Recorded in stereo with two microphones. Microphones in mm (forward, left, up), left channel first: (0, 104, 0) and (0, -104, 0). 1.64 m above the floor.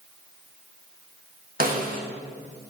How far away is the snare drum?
About 1.5 m.